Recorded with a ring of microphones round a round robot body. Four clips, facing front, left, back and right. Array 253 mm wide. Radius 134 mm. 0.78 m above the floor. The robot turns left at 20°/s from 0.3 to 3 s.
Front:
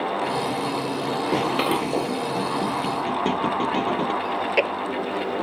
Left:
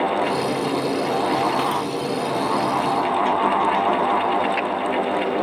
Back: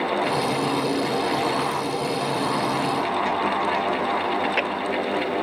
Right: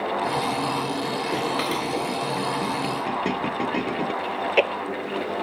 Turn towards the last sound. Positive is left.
turn(degrees=-50)